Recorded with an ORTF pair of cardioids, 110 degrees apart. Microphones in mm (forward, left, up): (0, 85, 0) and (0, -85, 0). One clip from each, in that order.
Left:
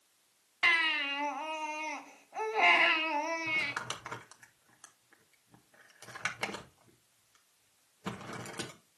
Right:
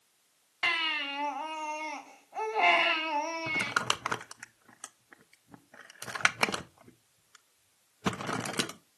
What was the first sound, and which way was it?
A baby crying, 5° left.